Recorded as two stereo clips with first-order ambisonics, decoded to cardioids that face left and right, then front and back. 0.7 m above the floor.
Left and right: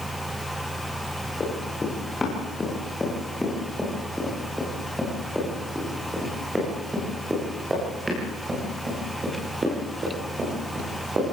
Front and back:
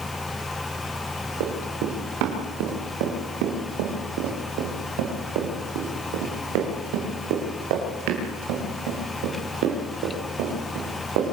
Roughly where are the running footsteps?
Behind.